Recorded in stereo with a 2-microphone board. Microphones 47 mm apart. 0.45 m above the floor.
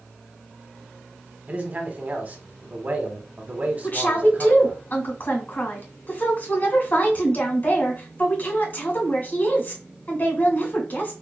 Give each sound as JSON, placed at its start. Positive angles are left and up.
{"t": 1.5, "sound": "a man speaking", "side_deg": -30, "distance_m": 1.0}
{"t": 3.8, "sound": "a woman speaking", "side_deg": 45, "distance_m": 1.8}